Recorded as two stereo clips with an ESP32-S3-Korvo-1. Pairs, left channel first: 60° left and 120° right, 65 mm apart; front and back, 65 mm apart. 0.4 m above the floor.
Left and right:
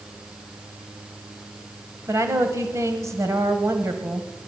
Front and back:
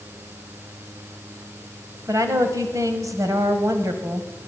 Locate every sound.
2.1 s a woman speaking: 155° right, 1.8 m